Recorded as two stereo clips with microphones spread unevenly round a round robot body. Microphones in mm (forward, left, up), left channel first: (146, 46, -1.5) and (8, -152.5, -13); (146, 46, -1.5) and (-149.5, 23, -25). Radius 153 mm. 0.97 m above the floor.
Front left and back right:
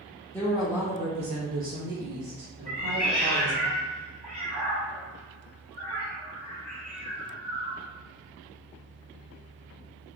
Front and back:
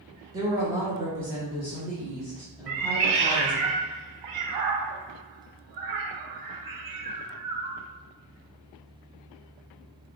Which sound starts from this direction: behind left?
A woman speaking, at 0.3 s.